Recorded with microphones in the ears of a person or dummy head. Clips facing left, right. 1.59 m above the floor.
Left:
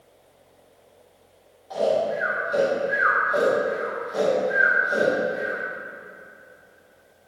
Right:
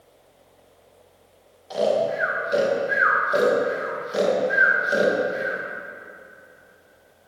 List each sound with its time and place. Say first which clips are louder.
1.7 s snoring: right 1 dB; 30° right (ahead or behind), 1.9 m